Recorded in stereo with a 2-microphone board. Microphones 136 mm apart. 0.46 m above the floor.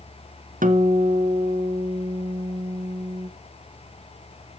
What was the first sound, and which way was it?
A guitar, 80° right.